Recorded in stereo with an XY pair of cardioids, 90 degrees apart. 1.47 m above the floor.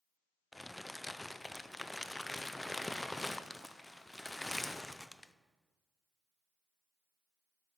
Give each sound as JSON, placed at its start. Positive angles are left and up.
{"t": 0.5, "sound": "crumpling", "azimuth_deg": 15, "distance_m": 0.6}